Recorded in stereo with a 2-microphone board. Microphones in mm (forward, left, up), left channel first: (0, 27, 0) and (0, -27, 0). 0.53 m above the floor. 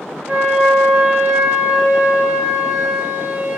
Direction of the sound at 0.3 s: 25° right (ahead or behind).